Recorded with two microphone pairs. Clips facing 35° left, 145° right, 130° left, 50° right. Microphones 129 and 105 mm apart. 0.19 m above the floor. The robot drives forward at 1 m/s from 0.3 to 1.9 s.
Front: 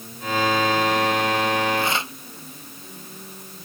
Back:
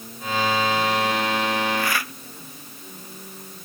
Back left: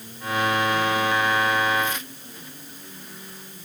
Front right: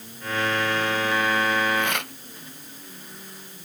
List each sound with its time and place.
1.8 s tearing paper: 30° right